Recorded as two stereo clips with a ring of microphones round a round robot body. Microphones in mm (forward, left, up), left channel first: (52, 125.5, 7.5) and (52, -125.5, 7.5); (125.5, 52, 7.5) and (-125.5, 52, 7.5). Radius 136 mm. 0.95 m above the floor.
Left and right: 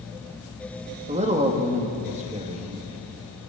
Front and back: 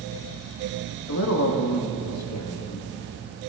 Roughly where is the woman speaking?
Ahead right.